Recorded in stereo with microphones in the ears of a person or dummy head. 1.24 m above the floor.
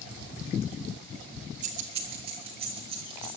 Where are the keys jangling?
40° right (ahead or behind), 1.4 m; by 3.3 s 25° right (ahead or behind), 3.5 m.